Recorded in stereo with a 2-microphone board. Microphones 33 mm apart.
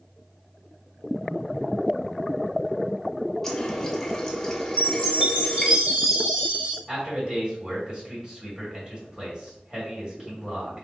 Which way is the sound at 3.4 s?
10° left (ahead or behind).